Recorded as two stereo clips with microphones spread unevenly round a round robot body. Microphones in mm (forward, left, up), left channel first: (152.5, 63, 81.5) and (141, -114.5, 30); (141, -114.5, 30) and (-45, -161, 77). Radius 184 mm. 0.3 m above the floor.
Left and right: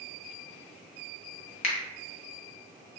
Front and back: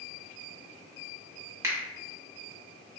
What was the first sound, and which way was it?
A finger snap, 105° left.